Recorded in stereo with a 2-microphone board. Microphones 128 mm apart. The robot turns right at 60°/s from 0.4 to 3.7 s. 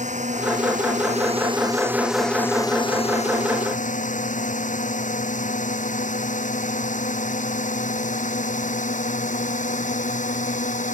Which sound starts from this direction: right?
A drone, at 0.0 s.